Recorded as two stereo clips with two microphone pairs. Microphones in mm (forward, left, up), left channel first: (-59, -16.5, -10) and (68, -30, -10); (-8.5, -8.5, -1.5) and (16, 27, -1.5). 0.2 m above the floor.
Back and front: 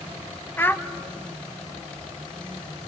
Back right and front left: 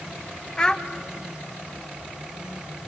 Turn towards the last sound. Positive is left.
turn(degrees=-150)